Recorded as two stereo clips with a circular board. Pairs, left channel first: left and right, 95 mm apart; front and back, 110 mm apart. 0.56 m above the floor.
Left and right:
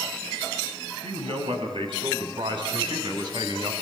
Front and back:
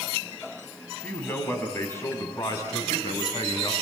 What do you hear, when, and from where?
1.0 s a man speaking: 75° right, 3.5 m; by 3.7 s 45° right, 3.5 m